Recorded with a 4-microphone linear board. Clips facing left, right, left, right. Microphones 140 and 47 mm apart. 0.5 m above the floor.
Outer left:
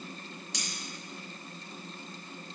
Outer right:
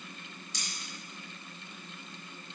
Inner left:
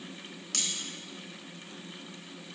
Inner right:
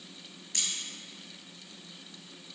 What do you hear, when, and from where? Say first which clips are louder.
0.5 s cutlery clinking: outer left 4 dB, inner left 1 dB; 80° left, 3 m